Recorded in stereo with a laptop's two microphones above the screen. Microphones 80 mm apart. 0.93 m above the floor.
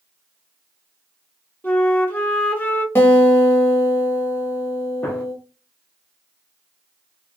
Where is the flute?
20° left (ahead or behind), 0.8 m.